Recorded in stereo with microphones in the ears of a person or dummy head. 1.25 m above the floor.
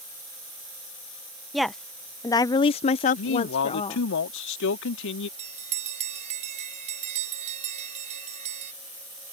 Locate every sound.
1.5 s a woman speaking: centre (ahead or behind); by 4.1 s 30° left (ahead or behind)
3.2 s a man speaking: 65° left (ahead or behind)
5.4 s a bell: 35° right (ahead or behind)